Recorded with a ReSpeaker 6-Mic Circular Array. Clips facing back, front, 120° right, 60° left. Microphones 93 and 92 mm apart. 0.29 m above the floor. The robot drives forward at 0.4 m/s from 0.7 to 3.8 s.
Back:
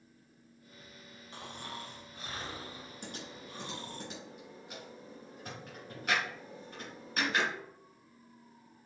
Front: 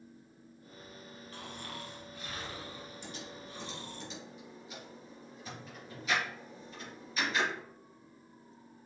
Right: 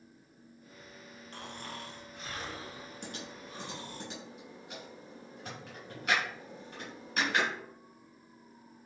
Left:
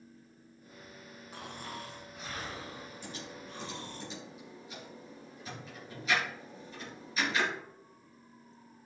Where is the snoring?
135° left, 1.8 m; by 4.0 s 155° left, 2.5 m.